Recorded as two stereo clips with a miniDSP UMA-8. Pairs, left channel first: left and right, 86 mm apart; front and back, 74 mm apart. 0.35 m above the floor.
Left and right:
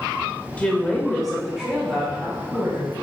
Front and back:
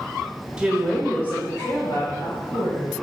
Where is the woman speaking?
130° left, 1.2 m; by 2.9 s 20° right, 3 m.